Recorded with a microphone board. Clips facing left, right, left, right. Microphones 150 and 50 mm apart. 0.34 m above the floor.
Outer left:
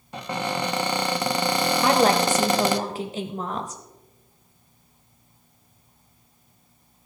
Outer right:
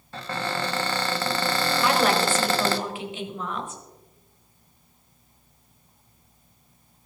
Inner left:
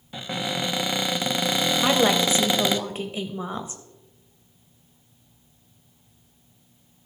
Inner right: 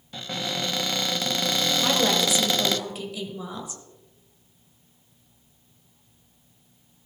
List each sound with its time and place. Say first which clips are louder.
0.1 s a cupboard door: outer left 2 dB, inner left 2 dB; 15° left (ahead or behind), 0.6 m
1.8 s a woman speaking: outer left 3 dB, inner left 4 dB; 40° left (ahead or behind), 1.2 m